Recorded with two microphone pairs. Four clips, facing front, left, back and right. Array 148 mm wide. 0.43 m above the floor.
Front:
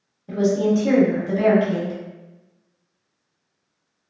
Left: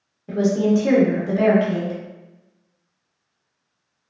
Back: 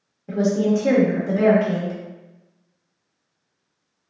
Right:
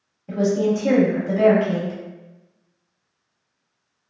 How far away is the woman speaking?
About 1.0 m.